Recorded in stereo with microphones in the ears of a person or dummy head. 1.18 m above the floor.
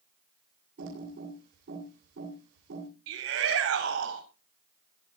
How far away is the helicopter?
I don't hear a helicopter.